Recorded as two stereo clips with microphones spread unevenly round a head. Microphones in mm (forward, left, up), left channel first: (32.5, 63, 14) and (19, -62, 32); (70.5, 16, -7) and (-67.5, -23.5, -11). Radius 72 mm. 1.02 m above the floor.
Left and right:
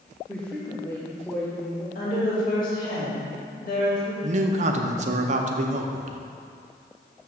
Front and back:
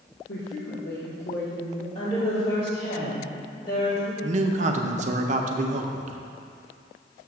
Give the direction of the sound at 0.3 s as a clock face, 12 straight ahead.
12 o'clock.